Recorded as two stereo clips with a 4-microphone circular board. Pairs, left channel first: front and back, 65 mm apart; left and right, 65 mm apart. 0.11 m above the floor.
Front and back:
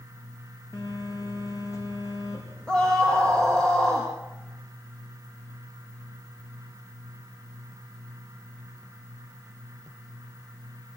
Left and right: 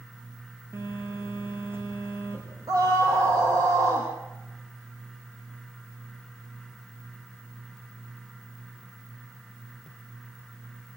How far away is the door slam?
I don't hear a door slam.